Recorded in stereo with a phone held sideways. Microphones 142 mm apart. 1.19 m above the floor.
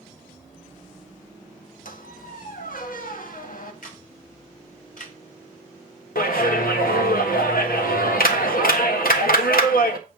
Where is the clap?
85° left, 1.4 m.